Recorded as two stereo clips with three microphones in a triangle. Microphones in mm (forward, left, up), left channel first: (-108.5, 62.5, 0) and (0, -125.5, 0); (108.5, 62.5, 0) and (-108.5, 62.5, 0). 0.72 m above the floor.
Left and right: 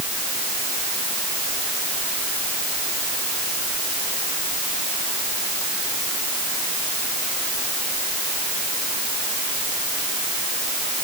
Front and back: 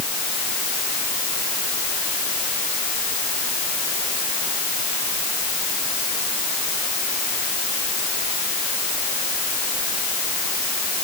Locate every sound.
Only background noise.